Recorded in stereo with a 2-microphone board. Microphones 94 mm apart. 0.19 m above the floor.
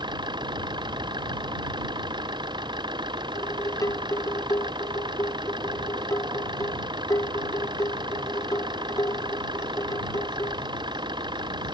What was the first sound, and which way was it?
An engine running, 50° right (ahead or behind).